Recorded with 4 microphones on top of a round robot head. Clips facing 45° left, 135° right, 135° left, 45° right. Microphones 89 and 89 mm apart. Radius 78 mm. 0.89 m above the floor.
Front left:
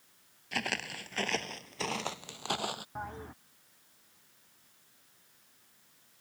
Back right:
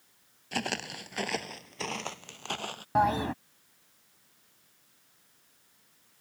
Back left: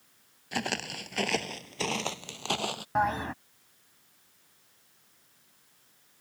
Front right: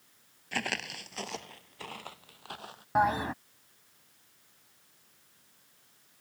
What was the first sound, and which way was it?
Footsteps, 160° right.